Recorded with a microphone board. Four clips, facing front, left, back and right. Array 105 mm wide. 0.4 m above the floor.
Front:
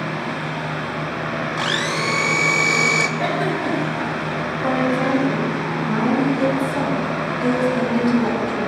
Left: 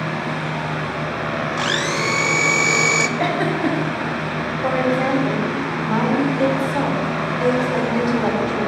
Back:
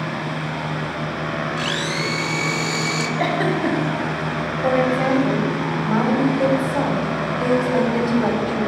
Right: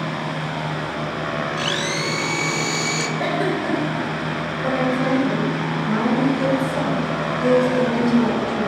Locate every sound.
1.6 s a blender: 60° left, 0.5 m
3.2 s a giggle: 145° left, 2 m
4.6 s a woman speaking: 130° left, 2 m